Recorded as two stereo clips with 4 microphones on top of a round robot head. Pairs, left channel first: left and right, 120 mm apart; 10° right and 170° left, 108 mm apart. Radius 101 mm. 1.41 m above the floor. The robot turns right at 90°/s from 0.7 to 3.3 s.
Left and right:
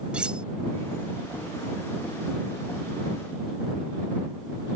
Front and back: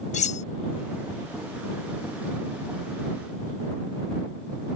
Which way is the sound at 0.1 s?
5° right.